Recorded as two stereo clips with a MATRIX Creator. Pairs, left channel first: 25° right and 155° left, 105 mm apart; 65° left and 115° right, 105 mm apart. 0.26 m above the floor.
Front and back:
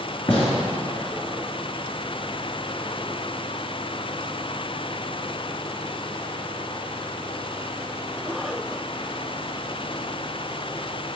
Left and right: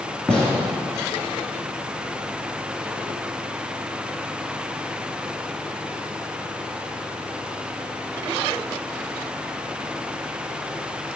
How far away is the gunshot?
About 2 m.